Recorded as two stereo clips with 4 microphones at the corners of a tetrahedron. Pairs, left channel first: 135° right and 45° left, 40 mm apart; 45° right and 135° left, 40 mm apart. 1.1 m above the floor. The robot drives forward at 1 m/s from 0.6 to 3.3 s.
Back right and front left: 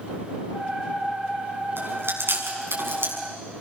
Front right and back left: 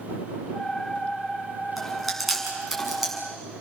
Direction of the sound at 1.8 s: 40° left.